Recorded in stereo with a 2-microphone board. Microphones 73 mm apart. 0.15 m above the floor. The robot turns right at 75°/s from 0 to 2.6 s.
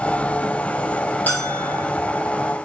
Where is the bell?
155° left, 5 m; by 1.8 s 165° right, 5 m.